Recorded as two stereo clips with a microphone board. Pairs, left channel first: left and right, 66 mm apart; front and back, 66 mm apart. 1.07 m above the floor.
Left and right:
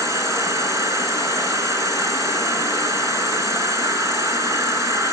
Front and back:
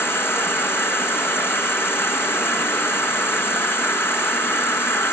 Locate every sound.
0.0 s an insect: 55° right, 4.5 m